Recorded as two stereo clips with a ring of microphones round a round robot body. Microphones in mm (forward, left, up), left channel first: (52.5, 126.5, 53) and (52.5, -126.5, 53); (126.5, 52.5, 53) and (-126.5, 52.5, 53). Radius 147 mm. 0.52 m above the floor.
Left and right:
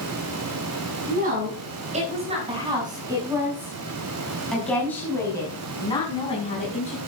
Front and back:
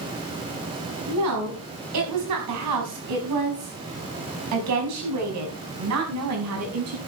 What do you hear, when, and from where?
1.1 s a woman speaking: 150° right, 5.5 m; by 7.0 s 155° left, 5.5 m